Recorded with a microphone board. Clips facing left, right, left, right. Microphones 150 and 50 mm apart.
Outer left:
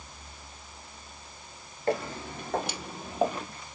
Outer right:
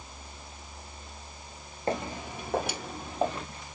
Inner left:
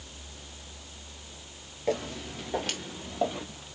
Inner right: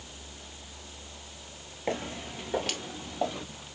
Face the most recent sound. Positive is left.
turn(degrees=15)  # may be behind; listen again after turning